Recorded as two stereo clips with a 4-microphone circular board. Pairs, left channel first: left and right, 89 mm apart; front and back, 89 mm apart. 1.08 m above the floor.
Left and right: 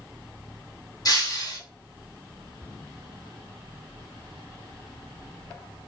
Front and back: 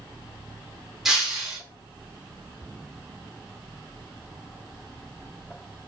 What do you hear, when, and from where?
1.1 s breaking glass: 95° left, 0.8 m